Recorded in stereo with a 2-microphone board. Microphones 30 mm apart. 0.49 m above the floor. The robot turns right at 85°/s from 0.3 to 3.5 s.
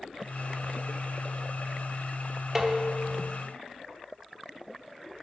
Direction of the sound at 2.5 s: 20° right (ahead or behind).